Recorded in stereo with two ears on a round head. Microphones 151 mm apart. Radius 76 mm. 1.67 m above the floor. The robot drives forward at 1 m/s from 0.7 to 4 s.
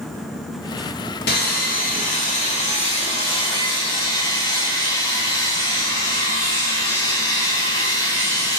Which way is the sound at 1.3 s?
65° left (ahead or behind).